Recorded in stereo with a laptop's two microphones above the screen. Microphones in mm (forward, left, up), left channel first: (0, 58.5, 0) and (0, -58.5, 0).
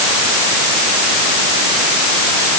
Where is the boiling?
No boiling in this recording.